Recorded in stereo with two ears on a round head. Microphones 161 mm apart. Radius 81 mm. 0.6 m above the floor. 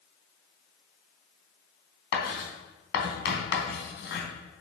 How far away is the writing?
About 3 m.